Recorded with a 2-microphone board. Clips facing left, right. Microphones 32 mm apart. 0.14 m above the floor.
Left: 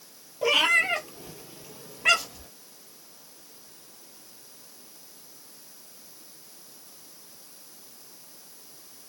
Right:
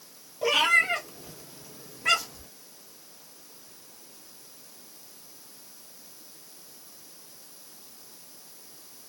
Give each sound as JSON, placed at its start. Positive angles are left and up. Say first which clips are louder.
{"t": 0.4, "sound": "a cat meowing", "louder": "even", "side_deg": 10, "distance_m": 1.5}